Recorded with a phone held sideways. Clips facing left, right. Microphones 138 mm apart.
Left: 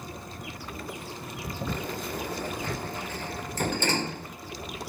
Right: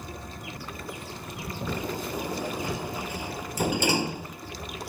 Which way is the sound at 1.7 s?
10° right (ahead or behind).